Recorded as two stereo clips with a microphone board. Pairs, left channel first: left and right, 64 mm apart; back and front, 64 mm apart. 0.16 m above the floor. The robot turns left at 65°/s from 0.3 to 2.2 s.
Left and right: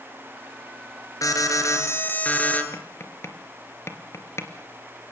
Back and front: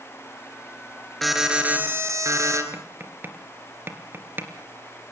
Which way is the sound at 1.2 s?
95° left.